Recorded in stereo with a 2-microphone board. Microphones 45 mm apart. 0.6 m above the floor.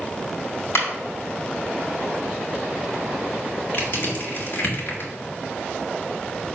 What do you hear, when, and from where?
0.8 s a clap: 65° left (ahead or behind), 2.5 m
3.7 s crushing: 45° left (ahead or behind), 1.9 m